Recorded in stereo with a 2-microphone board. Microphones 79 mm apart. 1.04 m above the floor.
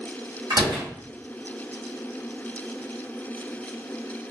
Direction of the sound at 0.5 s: 60° right (ahead or behind).